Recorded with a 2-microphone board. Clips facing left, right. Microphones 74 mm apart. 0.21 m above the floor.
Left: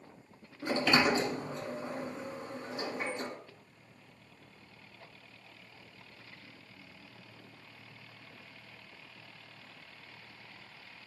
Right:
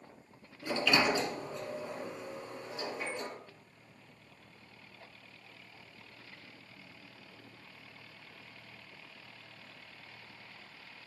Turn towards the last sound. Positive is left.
turn(degrees=45)  # may be behind; listen again after turning